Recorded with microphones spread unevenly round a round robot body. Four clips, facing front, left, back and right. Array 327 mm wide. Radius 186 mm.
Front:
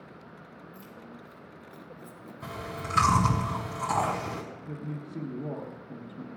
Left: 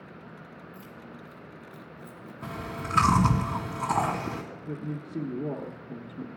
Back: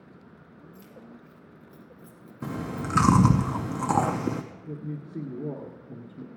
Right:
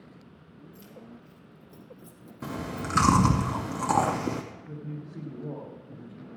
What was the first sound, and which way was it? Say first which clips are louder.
Keys jangling: left 3 dB, back 1 dB; 170° left.